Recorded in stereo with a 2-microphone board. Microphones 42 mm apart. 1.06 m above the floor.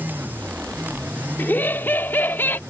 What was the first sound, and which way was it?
Laughter, 55° left (ahead or behind).